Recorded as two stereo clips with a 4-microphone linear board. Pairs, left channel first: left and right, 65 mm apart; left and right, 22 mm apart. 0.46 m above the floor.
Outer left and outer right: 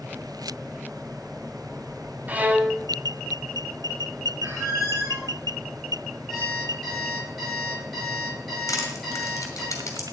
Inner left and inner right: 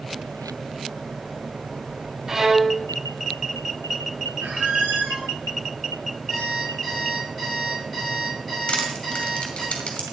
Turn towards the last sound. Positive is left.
turn(degrees=55)  # may be behind; listen again after turning